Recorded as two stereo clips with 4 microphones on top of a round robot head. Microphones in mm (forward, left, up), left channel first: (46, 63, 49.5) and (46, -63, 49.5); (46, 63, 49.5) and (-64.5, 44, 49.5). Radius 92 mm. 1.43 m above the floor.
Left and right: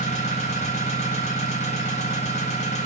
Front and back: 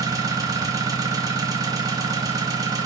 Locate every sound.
0.0 s an engine running: 135° left, 1.0 m